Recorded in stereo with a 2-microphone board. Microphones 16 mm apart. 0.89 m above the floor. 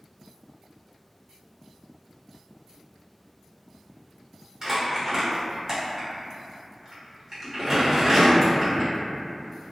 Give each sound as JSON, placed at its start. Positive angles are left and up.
{"t": 4.6, "sound": "crumpling", "side_deg": -30, "distance_m": 0.9}